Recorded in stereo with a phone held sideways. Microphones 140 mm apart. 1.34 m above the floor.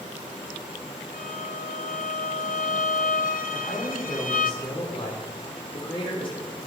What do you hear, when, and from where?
1.1 s a violin: 75° left (ahead or behind), 0.8 m
3.5 s a man speaking: 40° left (ahead or behind), 5 m